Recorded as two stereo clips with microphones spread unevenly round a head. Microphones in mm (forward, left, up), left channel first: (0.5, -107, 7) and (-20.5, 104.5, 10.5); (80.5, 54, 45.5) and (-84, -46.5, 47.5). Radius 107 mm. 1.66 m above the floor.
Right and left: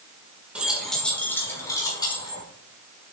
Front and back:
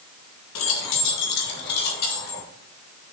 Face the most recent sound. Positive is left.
turn(degrees=-15)